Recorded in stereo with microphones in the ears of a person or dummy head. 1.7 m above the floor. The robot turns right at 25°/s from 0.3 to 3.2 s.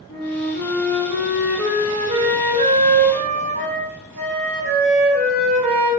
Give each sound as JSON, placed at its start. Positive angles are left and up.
{"t": 0.1, "sound": "a flute", "azimuth_deg": 160, "distance_m": 0.6}